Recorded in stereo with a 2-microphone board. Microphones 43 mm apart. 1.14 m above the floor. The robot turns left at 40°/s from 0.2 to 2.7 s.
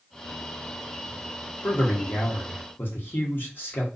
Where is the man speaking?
110° left, 1.1 m; by 3.9 s 70° left, 1.1 m.